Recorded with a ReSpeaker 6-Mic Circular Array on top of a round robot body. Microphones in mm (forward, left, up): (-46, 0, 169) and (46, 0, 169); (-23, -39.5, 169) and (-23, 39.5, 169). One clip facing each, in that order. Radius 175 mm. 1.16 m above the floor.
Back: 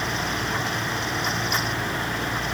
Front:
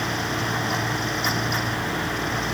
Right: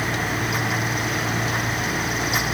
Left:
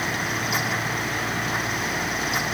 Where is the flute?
I don't hear a flute.